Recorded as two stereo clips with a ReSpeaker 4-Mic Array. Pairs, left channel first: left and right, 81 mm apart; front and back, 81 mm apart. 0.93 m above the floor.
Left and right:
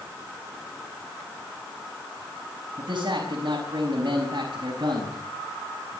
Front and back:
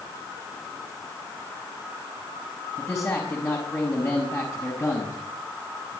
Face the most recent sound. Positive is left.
turn(degrees=-55)